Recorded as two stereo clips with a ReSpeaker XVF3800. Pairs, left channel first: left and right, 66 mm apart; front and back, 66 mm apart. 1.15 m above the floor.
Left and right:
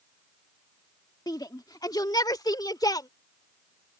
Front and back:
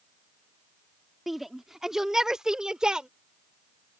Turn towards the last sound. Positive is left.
turn(degrees=100)